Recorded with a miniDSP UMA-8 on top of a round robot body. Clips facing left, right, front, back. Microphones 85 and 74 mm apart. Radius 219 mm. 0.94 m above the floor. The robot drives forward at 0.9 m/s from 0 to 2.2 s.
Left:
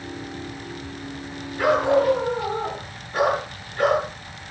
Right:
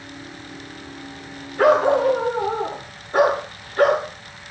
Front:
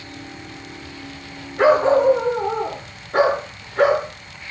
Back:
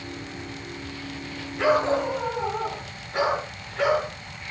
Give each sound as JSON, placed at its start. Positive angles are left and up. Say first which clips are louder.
{"t": 1.6, "sound": "a dog barking", "louder": "right 3 dB, front 7 dB", "azimuth_deg": -45, "distance_m": 8.0}